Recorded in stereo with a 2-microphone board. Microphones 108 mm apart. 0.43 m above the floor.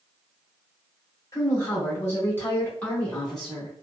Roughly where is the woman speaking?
Left.